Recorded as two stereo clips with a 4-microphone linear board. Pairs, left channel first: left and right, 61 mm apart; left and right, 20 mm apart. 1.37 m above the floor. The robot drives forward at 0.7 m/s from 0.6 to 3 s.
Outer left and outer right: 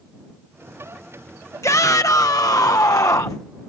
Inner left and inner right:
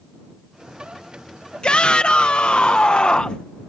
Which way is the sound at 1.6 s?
60° left (ahead or behind).